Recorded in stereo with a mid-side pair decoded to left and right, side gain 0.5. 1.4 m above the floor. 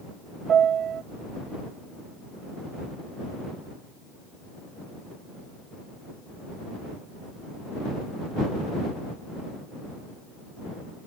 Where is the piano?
55° right.